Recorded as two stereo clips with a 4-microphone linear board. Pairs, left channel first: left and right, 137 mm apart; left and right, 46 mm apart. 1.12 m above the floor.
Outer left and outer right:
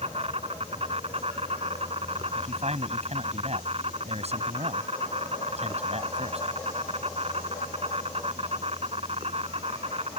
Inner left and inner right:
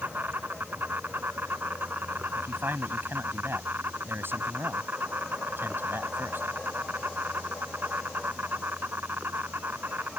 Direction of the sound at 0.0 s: 45° right (ahead or behind).